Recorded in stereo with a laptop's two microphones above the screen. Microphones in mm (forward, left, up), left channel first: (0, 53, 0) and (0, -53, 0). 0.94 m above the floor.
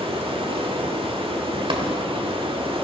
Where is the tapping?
50° right (ahead or behind), 1.3 m.